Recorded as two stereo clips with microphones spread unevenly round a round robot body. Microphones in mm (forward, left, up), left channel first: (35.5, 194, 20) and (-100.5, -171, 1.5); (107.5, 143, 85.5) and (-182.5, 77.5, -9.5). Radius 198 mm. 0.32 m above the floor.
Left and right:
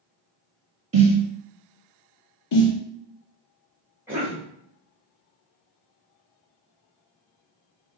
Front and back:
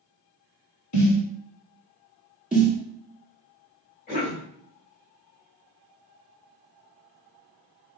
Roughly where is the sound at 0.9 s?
Ahead right.